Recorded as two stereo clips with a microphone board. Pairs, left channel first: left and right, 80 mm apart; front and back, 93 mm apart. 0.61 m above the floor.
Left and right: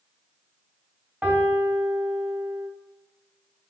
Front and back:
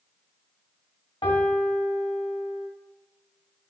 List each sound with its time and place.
1.2 s a piano: 20° right, 0.7 m